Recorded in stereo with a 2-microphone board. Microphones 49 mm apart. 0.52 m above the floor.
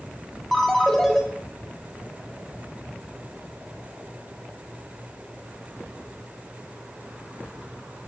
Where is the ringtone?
5° left (ahead or behind), 0.9 m.